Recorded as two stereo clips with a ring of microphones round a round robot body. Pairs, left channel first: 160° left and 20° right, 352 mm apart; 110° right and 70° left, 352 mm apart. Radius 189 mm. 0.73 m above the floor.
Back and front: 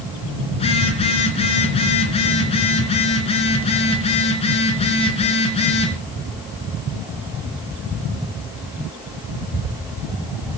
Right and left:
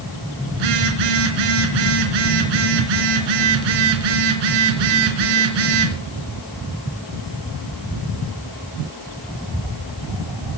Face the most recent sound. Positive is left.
turn(degrees=85)